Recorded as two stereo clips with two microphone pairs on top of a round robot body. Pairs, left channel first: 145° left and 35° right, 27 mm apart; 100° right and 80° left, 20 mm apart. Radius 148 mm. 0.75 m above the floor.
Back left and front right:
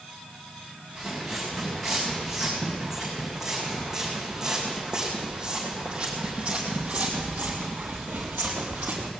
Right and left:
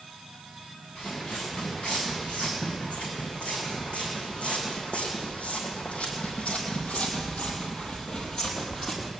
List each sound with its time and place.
0.9 s footsteps: 115° right, 4 m; by 9.1 s 25° right, 1.3 m